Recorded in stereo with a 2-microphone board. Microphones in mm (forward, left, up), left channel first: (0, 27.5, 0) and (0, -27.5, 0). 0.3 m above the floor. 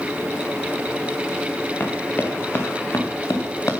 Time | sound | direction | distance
1.8 | running footsteps | 35° left (ahead or behind) | 3.5 m